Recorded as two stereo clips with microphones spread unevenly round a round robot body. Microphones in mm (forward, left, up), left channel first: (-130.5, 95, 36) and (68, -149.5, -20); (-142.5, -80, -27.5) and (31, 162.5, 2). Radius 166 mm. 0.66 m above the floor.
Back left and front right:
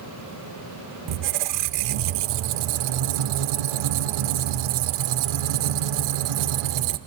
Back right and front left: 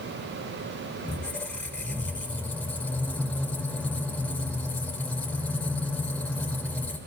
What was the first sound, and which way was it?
A squeak, 40° right.